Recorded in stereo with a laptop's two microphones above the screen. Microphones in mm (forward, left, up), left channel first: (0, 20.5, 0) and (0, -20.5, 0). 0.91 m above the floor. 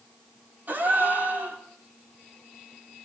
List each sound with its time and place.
0.7 s a gasp: 45° right (ahead or behind), 4 m